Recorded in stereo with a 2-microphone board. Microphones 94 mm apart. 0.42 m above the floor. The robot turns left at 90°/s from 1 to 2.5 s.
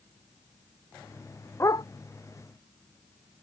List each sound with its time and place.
1.6 s a dog barking: 30° left (ahead or behind); by 1.9 s 50° left (ahead or behind)